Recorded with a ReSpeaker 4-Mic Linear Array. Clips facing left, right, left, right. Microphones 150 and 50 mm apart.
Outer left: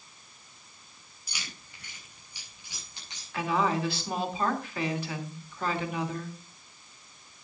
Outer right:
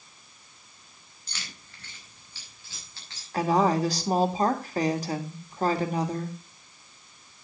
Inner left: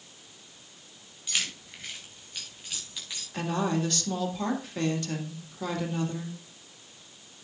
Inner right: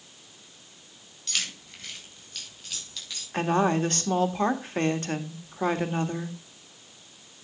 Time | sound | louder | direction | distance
1.3 | keys jangling | even, even | 10° left (ahead or behind) | 3.5 m
3.3 | a woman speaking | outer right 5 dB, inner right 5 dB | 40° right (ahead or behind) | 1.7 m